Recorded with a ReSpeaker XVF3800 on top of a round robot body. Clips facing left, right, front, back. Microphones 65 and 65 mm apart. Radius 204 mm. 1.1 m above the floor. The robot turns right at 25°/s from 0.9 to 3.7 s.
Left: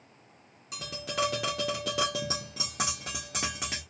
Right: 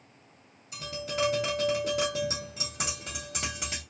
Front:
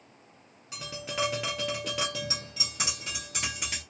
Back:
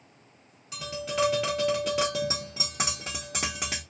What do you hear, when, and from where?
0.7 s tapping: 70° left, 0.6 m; by 3.8 s 140° left, 0.6 m